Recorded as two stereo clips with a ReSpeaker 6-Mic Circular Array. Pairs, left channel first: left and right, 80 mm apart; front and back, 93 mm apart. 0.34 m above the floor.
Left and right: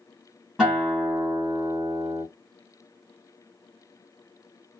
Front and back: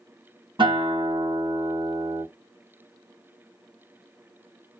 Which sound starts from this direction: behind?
A guitar, at 0.6 s.